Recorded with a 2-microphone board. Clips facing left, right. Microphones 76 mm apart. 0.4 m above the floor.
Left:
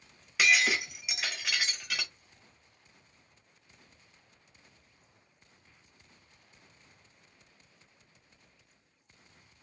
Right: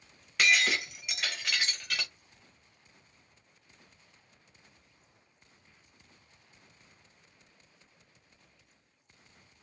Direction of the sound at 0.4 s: 5° left (ahead or behind).